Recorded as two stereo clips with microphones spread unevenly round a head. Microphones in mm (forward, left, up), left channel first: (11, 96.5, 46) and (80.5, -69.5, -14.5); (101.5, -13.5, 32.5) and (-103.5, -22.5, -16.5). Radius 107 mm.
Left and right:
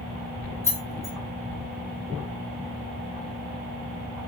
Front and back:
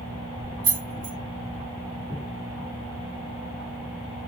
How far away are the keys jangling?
About 0.8 m.